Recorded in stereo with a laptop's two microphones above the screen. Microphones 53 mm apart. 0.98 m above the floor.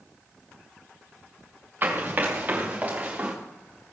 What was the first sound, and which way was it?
Running footsteps, 35° right (ahead or behind).